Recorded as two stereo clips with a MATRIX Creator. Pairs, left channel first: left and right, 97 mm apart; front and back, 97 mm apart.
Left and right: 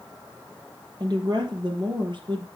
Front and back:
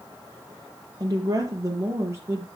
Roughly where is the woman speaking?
Behind right.